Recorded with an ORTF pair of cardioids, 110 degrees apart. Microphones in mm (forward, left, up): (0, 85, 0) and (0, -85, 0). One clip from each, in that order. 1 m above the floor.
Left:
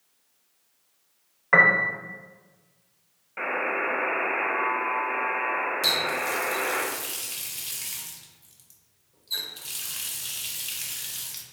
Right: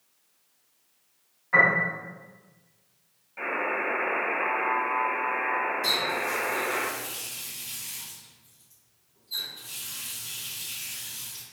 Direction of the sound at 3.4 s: 40° left.